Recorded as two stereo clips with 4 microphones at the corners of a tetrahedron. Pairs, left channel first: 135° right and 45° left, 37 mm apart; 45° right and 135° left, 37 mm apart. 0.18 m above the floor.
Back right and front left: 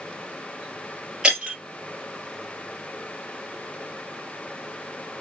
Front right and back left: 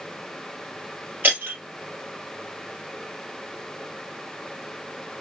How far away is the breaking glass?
About 2.5 m.